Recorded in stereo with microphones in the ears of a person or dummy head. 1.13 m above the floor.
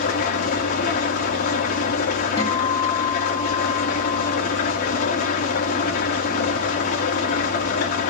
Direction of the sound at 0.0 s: 50° left (ahead or behind).